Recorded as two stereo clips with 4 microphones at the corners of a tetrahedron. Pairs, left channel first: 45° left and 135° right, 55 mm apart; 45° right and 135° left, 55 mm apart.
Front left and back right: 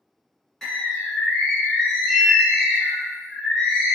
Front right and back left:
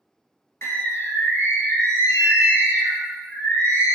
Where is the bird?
35° right, 1.0 m.